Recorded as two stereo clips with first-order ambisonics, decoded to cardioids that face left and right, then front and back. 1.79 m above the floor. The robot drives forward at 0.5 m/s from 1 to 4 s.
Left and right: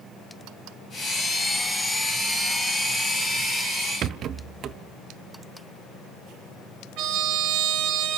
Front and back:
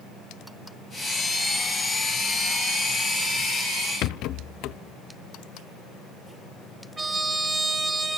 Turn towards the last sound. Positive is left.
turn(degrees=-105)